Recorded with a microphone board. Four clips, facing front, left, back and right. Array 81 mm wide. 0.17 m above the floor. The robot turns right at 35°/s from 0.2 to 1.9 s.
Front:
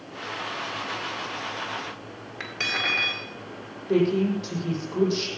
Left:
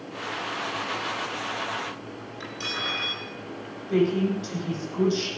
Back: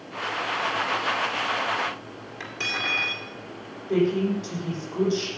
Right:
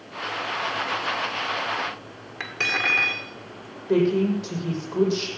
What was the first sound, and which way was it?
Cutlery clinking, 70° right.